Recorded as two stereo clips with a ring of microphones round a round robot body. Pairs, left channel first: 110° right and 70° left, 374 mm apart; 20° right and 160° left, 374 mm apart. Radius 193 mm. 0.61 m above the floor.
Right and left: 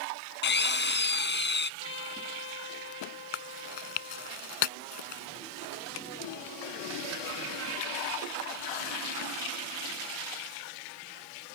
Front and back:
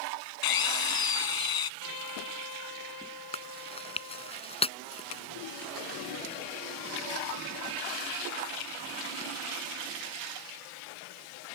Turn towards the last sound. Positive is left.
turn(degrees=-95)